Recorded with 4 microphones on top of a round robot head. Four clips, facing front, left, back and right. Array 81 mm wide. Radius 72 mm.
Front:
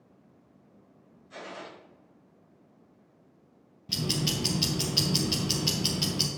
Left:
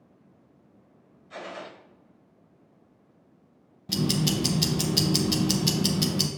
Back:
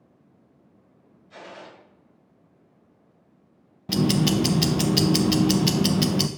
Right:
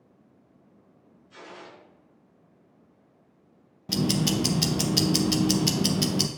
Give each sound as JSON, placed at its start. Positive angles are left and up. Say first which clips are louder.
{"t": 1.3, "sound": "a gunshot", "louder": "left 6 dB, even", "azimuth_deg": 80, "distance_m": 2.0}
{"t": 3.9, "sound": "ticking", "louder": "right 1 dB, back 10 dB", "azimuth_deg": -165, "distance_m": 0.6}